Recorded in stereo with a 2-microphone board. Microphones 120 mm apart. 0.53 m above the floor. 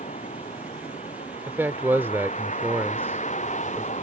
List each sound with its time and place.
0.0 s a vehicle: 90° left
1.5 s a man speaking: 20° right (ahead or behind)